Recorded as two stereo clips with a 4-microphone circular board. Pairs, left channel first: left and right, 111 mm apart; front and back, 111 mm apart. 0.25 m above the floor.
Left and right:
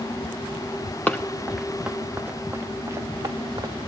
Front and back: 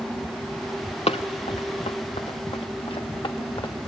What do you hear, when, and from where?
1.1 s running footsteps: 15° left, 1.1 m; by 3.8 s 40° right, 1.7 m